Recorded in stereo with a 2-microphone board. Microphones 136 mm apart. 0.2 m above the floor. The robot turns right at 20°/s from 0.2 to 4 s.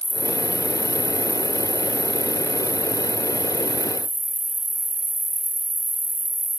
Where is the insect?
Straight behind, 1.4 m; by 6.6 s 105° right, 1.4 m.